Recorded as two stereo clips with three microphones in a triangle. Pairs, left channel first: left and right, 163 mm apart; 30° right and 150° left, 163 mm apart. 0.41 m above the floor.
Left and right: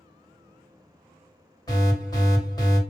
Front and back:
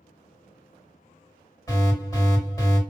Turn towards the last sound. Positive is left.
turn(degrees=30)